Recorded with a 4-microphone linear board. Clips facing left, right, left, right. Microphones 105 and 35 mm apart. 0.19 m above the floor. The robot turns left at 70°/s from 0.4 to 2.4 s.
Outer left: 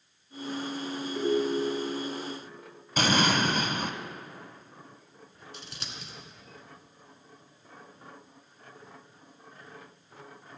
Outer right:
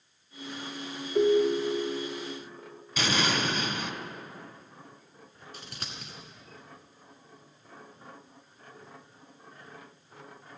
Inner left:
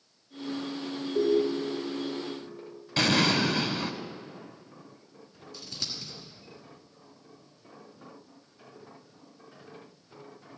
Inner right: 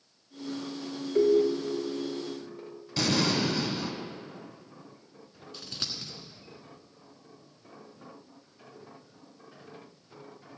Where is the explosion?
50° left (ahead or behind), 0.7 m.